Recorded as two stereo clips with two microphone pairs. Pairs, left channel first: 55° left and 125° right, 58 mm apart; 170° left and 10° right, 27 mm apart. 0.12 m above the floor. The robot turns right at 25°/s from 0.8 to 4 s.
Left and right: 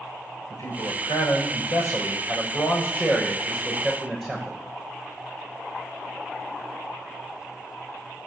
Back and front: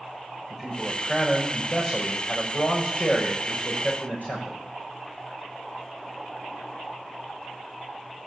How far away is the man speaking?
About 7.5 m.